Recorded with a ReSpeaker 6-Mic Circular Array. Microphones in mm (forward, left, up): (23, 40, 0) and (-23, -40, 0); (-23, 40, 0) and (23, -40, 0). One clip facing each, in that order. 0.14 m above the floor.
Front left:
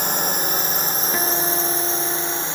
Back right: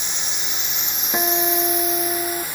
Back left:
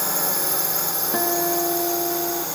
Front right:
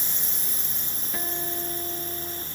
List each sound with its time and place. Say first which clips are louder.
0.0 s a drone: front left 10 dB, back left 14 dB; 100° left; by 2.5 s 125° left
1.1 s a guitar: back right 4 dB, back left 12 dB; 165° left